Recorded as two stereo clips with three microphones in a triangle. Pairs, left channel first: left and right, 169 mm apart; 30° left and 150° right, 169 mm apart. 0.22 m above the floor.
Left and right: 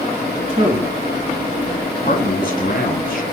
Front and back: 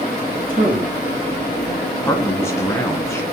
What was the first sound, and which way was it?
A man speaking, 135° right.